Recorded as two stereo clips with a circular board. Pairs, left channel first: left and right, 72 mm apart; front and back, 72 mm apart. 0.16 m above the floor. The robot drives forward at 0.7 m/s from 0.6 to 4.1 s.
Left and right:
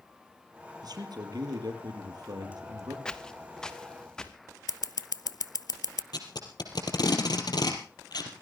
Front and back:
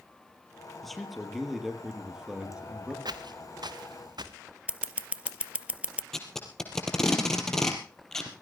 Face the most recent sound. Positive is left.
turn(degrees=85)